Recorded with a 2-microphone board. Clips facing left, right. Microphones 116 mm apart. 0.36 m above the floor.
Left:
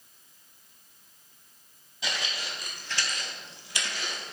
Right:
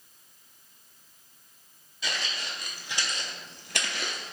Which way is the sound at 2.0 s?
20° left (ahead or behind).